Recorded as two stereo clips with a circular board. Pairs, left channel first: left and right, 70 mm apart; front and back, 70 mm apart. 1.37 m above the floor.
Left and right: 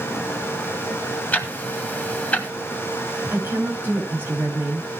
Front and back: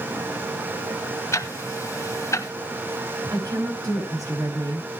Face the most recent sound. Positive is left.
turn(degrees=-150)